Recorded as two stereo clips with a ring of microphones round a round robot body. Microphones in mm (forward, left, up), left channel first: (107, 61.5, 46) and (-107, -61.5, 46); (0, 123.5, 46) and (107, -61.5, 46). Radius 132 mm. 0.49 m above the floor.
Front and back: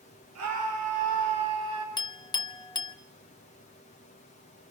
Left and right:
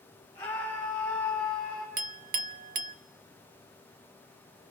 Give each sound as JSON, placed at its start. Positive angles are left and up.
{"t": 0.3, "sound": "a scream", "azimuth_deg": -165, "distance_m": 5.5}
{"t": 2.0, "sound": "a clink", "azimuth_deg": -35, "distance_m": 0.8}